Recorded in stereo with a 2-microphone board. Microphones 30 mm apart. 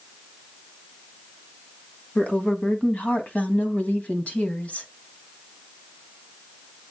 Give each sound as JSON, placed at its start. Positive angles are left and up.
{"t": 2.1, "sound": "a woman speaking", "side_deg": 65, "distance_m": 2.5}